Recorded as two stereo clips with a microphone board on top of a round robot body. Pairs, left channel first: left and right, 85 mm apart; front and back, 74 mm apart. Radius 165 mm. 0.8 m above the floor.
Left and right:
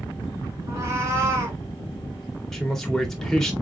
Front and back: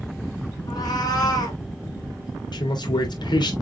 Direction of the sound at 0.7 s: 35° right.